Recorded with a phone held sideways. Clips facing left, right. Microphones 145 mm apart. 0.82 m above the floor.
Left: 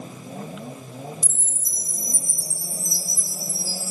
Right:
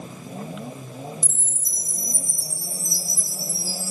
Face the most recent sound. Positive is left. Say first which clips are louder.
# right 1 dB
turn(degrees=55)  # may be behind; listen again after turning